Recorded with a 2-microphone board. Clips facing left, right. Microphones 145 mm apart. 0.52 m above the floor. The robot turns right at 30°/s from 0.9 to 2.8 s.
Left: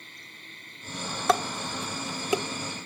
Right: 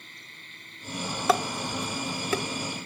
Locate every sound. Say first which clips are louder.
1.3 s dishes clattering: even; 5° right (ahead or behind), 0.6 m; by 2.4 s 20° left (ahead or behind), 0.6 m